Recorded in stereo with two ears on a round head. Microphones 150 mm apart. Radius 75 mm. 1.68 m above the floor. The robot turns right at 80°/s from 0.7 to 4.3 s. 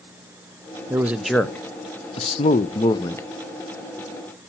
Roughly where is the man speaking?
Ahead right.